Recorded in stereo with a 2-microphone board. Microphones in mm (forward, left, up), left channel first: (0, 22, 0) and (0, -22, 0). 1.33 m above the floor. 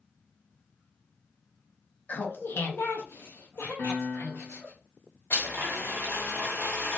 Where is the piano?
75° left (ahead or behind), 1.0 m.